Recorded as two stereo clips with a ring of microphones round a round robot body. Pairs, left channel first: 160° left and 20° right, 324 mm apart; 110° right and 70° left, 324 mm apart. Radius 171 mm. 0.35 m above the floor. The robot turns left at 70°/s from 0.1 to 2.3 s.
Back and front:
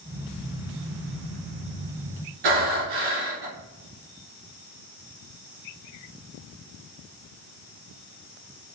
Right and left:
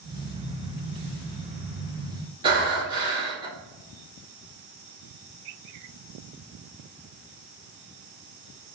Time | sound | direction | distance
2.4 | breathing | 10° right | 1.7 m